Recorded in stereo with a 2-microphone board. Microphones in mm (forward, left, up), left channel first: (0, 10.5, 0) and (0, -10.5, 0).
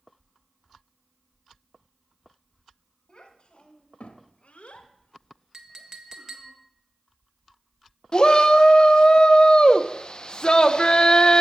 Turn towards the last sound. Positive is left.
turn(degrees=40)  # may be behind; listen again after turning